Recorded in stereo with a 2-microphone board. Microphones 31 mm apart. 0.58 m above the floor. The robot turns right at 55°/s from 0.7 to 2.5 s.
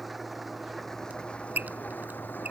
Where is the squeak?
50° right (ahead or behind); by 2.5 s 55° right (ahead or behind).